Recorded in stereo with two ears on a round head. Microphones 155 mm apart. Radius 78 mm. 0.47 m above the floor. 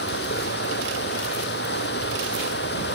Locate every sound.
0.0 s running water: 65° left (ahead or behind)